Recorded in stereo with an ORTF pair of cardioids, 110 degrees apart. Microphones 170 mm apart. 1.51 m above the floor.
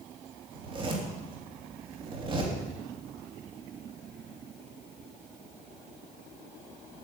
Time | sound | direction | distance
0.5 | a zipper | 30° right | 3 m